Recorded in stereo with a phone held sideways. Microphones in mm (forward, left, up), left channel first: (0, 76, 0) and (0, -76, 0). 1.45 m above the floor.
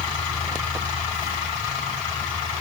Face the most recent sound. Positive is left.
No sound to turn to.